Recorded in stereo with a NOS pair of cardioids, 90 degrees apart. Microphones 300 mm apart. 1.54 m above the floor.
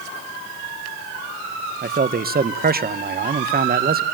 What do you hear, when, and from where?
1.8 s a man speaking: 30° right, 1.5 m